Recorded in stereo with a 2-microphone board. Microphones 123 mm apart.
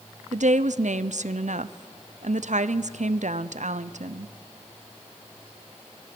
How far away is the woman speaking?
About 0.6 m.